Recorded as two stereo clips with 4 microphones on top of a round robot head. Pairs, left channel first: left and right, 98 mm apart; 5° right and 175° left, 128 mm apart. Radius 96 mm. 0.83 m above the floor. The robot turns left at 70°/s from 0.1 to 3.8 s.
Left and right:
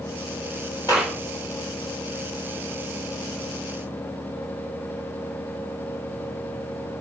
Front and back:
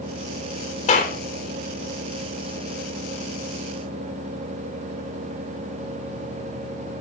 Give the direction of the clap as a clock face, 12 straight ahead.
11 o'clock.